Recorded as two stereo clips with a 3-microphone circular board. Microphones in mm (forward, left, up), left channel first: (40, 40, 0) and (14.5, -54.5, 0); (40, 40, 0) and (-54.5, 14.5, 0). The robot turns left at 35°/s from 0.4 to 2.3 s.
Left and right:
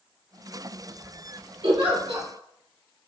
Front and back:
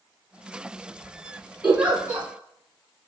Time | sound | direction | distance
1.6 | a giggle | 85° right | 1.2 m